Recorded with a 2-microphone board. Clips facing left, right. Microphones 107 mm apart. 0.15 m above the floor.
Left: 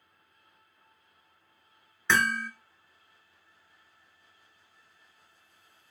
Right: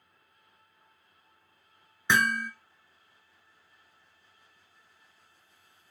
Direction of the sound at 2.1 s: 15° right (ahead or behind).